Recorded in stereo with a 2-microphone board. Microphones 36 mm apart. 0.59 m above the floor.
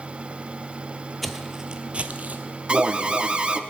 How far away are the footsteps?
About 0.7 m.